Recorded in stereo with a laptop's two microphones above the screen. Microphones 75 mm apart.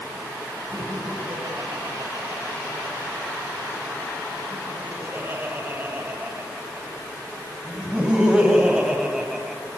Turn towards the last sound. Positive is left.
turn(degrees=-5)  # may be behind; listen again after turning